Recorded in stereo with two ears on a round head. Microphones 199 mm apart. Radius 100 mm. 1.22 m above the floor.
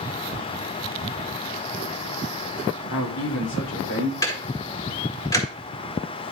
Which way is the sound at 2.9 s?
60° left (ahead or behind).